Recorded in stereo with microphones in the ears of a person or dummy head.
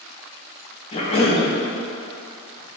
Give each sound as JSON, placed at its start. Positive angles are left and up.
{"t": 0.9, "sound": "a cough", "side_deg": 30, "distance_m": 0.7}